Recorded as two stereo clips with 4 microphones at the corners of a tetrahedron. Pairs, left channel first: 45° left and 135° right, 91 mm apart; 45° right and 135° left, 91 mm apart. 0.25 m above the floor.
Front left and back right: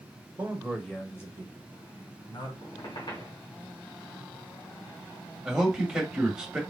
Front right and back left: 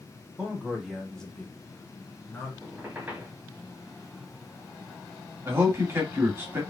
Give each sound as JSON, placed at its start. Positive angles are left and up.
{"t": 0.4, "sound": "a man speaking", "azimuth_deg": -170, "distance_m": 1.4}
{"t": 2.6, "sound": "a squeak", "azimuth_deg": 65, "distance_m": 2.5}
{"t": 5.5, "sound": "a man speaking", "azimuth_deg": 150, "distance_m": 1.8}